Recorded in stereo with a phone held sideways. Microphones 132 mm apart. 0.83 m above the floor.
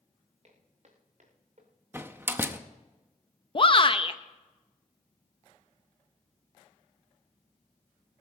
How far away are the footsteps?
About 3.5 m.